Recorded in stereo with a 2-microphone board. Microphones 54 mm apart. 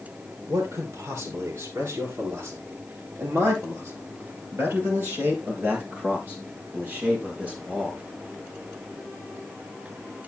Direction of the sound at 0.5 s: 80° right.